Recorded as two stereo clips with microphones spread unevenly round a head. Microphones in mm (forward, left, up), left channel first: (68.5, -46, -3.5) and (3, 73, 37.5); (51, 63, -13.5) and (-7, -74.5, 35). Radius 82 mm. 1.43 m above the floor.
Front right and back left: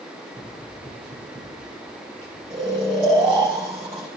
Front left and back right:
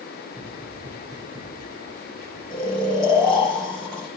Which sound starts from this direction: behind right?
Running footsteps, at 0.3 s.